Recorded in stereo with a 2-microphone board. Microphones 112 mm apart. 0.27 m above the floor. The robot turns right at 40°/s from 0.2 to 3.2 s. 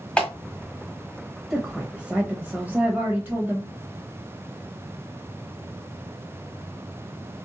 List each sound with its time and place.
0.2 s a clap: 10° left (ahead or behind), 1.3 m; by 0.3 s 5° left (ahead or behind), 1.3 m
1.5 s a woman speaking: 5° right (ahead or behind), 1.0 m; by 3.7 s 20° right (ahead or behind), 1.0 m